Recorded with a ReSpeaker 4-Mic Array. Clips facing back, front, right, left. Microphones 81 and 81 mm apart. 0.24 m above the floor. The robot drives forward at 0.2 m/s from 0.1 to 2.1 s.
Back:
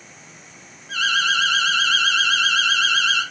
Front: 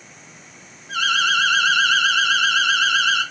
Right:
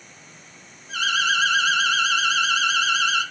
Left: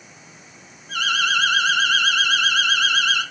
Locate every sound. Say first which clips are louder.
0.9 s an alarm: front 1 dB, left 1 dB; 70° left, 3.5 m; by 3.2 s 75° left, 3.5 m